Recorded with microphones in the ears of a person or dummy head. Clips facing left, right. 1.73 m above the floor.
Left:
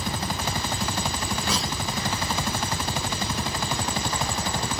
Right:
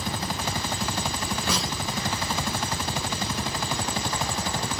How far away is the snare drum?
About 1.3 m.